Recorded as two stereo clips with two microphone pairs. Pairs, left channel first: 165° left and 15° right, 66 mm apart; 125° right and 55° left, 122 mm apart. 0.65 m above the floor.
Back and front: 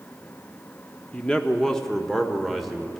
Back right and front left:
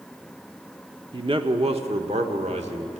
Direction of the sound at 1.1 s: 90° left.